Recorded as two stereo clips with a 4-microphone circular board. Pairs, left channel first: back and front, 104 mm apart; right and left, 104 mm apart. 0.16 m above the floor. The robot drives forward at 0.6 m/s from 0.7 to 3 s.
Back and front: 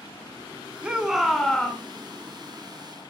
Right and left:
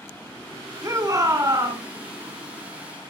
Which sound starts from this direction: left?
A shout, at 0.8 s.